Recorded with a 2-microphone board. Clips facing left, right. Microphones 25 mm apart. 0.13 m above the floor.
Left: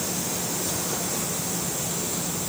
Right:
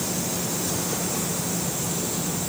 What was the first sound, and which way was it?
Only background noise.